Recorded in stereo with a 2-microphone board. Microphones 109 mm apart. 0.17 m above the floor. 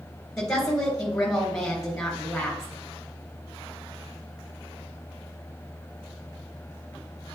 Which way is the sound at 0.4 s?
5° left (ahead or behind).